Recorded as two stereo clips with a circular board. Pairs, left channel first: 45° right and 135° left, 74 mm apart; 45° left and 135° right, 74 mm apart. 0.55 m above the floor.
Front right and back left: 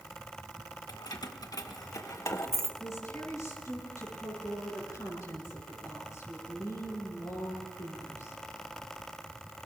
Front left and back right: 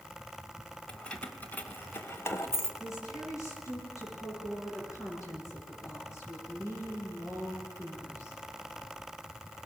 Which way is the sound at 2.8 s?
Straight ahead.